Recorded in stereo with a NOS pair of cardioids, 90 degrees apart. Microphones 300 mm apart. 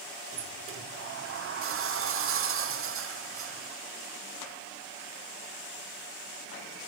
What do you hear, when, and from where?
0.3 s a sliding door: 45° right, 0.7 m